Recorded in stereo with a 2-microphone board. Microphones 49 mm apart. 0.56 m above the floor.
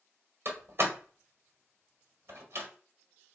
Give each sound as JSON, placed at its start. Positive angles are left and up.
{"t": 0.5, "sound": "a door slam", "side_deg": -50, "distance_m": 1.5}